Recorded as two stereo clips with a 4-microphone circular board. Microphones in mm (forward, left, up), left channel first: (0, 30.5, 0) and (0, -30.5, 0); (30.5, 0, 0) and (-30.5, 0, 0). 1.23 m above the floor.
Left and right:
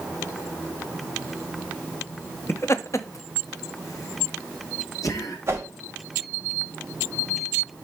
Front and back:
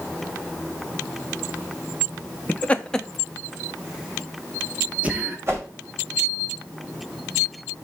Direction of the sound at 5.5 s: 140° right.